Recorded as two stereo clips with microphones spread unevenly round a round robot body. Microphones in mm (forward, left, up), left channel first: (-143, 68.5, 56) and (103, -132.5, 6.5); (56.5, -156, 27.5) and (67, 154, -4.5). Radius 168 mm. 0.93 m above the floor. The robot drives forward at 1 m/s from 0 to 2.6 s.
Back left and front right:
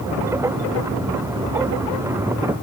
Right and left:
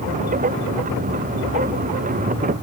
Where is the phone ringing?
No phone ringing in this recording.